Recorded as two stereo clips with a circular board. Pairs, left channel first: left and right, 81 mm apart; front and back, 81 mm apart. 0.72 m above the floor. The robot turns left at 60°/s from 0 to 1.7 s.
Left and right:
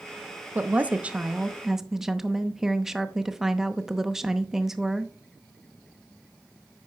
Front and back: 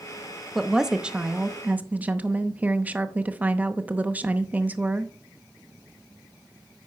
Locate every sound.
0.6 s a woman speaking: 95° right, 0.7 m; by 5.1 s 165° right, 0.7 m